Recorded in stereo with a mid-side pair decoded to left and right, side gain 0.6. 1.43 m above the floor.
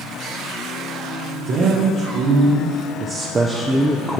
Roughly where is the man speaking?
Ahead right.